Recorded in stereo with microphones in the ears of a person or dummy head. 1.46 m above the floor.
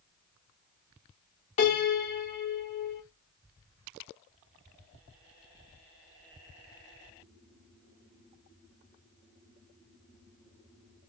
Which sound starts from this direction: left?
A piano, at 1.6 s.